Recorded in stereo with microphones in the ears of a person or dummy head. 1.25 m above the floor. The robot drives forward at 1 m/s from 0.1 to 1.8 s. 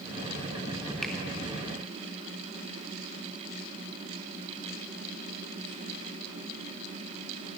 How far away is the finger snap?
About 1.9 m.